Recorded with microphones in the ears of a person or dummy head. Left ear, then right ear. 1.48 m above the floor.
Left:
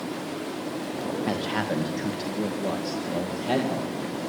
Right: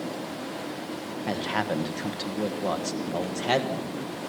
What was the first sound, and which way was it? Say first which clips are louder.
A man speaking: right 2 dB; 10° right (ahead or behind).